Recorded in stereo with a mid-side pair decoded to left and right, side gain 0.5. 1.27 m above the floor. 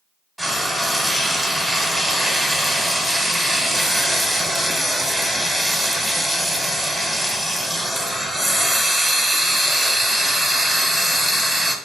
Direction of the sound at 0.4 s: 5° right.